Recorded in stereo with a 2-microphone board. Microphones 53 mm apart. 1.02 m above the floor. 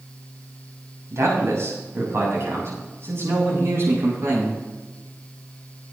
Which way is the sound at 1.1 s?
65° right (ahead or behind).